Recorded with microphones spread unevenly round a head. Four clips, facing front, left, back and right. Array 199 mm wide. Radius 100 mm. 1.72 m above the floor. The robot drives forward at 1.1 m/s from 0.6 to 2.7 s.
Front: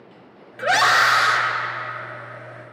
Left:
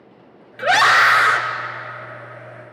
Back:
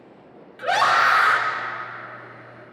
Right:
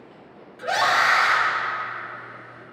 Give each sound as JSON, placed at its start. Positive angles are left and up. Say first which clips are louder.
{"t": 0.6, "sound": "a scream", "louder": "left 6 dB, front 1 dB", "azimuth_deg": 60, "distance_m": 1.2}